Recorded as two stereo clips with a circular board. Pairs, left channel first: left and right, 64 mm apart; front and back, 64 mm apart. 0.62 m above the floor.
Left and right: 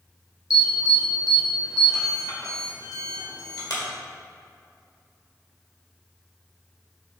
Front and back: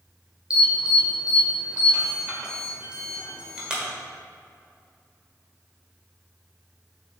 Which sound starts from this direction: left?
An alarm, at 0.5 s.